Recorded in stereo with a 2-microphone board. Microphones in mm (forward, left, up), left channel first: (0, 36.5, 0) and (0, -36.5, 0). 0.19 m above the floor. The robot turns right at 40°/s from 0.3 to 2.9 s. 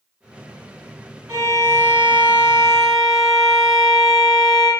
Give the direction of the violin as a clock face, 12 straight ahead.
2 o'clock.